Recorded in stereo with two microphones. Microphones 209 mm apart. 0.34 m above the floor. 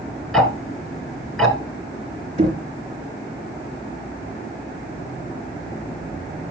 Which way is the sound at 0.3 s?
Centre (ahead or behind).